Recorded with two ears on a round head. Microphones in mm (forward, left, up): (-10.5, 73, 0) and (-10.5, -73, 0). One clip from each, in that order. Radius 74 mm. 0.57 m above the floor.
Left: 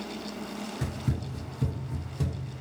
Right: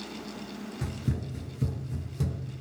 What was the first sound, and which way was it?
Running footsteps, 5° left (ahead or behind).